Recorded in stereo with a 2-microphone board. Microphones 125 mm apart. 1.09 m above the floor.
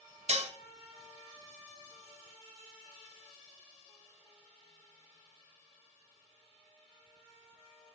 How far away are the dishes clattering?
About 0.7 m.